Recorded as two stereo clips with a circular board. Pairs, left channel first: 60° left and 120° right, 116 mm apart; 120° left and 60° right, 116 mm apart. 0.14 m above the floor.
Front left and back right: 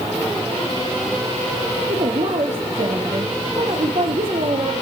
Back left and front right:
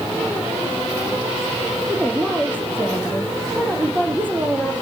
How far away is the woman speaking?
About 5 m.